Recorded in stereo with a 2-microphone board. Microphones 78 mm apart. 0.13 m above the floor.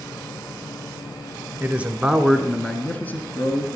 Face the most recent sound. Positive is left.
turn(degrees=35)  # may be behind; listen again after turning